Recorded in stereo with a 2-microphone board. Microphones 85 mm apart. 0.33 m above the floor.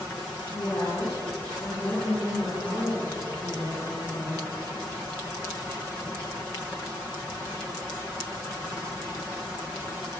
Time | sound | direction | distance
0.5 | a woman speaking | 35° left (ahead or behind) | 10 m